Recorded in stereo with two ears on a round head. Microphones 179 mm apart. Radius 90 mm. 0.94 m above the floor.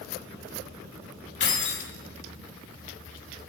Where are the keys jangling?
55° left (ahead or behind), 1.4 m.